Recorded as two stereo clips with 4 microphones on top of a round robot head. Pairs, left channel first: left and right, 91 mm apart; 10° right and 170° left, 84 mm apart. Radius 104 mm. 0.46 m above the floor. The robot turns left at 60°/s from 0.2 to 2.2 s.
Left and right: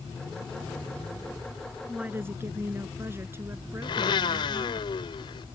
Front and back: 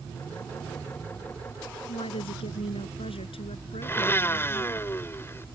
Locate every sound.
1.9 s a woman speaking: 5° right; by 4.8 s 20° right
3.8 s a blender: 55° left